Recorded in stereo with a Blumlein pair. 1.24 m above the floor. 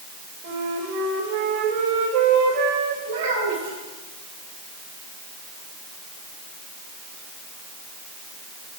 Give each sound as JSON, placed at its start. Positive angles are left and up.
{"t": 0.4, "sound": "a flute", "azimuth_deg": -50, "distance_m": 1.6}
{"t": 3.0, "sound": "a child speaking", "azimuth_deg": -70, "distance_m": 3.0}